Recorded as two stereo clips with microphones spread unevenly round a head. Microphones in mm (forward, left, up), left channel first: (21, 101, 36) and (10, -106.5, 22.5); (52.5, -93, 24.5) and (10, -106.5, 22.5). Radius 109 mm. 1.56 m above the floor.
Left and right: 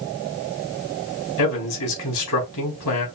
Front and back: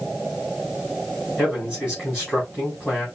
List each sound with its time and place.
1.4 s a man speaking: 100° left, 4 m